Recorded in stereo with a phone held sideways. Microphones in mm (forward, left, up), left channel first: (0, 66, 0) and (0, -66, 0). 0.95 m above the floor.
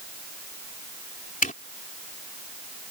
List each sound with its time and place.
1.4 s a zipper: 75° left (ahead or behind)